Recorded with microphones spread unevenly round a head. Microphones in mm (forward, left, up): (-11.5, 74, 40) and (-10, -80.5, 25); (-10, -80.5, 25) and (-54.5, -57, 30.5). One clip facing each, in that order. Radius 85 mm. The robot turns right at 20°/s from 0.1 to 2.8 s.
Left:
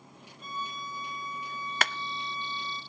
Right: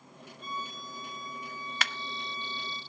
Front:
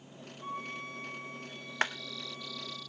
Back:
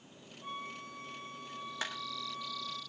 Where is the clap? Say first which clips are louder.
Left 5 dB, front 9 dB; 40° left, 0.5 m.